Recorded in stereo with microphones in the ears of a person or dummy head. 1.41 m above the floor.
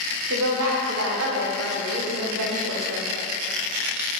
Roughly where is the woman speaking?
Right.